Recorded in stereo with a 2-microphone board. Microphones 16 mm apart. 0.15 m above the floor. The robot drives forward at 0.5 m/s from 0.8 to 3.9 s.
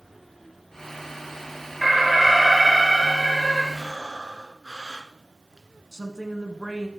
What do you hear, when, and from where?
1.8 s an alarm: 20° right (ahead or behind), 2.5 m; by 3.6 s 15° right (ahead or behind), 3 m
3.7 s breathing: 35° right (ahead or behind), 1.1 m
5.9 s a woman speaking: 30° right (ahead or behind), 1.2 m